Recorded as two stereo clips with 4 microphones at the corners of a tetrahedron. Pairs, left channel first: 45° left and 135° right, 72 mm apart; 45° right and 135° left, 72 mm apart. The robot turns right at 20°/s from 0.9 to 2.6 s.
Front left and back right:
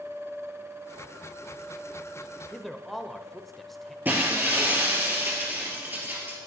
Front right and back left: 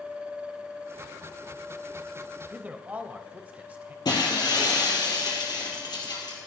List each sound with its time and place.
2.5 s a man speaking: 125° left, 0.9 m
4.0 s breaking glass: 70° right, 2.5 m